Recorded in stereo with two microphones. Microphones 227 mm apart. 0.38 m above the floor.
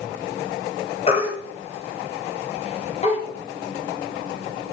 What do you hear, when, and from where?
1.1 s a baby crying: 30° left (ahead or behind), 2 m